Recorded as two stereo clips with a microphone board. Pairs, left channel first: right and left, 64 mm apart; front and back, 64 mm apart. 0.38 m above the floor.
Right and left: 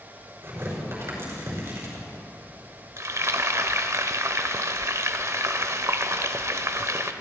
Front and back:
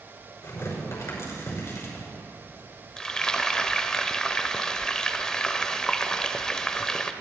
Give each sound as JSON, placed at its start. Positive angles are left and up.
{"t": 0.4, "sound": "tearing paper", "azimuth_deg": 40, "distance_m": 5.5}
{"t": 3.0, "sound": "frying", "azimuth_deg": 75, "distance_m": 0.8}